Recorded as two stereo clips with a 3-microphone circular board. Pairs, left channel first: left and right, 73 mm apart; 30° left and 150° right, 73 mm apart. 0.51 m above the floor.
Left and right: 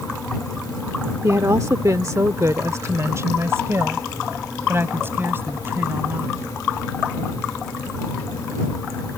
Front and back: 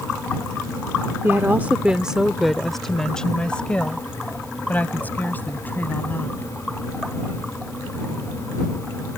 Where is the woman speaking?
105° right; by 6.5 s 30° right.